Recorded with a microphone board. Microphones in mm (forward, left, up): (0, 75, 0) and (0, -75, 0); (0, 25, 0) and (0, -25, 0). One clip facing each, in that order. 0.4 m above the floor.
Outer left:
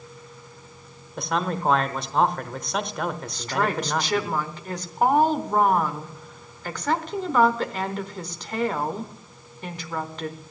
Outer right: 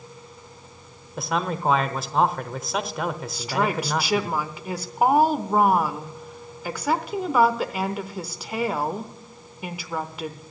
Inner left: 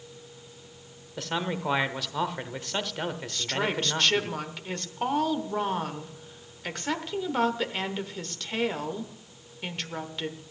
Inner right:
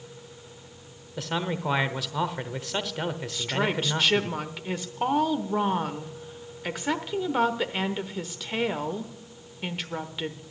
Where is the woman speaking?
10° right (ahead or behind), 0.9 m.